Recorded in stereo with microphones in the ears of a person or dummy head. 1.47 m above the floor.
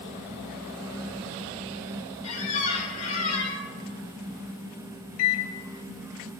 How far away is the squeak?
About 1.1 m.